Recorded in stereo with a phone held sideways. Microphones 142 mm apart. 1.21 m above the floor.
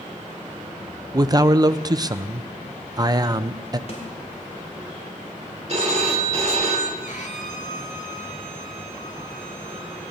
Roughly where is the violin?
Left.